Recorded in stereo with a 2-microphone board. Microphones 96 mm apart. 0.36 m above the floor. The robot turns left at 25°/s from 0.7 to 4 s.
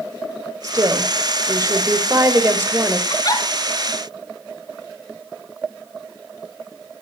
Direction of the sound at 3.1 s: 40° left (ahead or behind).